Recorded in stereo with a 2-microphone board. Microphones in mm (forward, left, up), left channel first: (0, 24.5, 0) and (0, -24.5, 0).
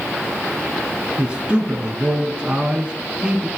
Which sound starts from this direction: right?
A man speaking, at 1.2 s.